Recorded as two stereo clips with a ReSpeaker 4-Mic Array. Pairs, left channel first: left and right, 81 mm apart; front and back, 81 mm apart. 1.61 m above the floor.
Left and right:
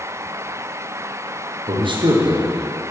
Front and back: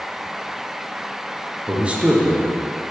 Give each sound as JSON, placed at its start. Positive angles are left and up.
{"t": 1.7, "sound": "a man speaking", "azimuth_deg": -105, "distance_m": 0.9}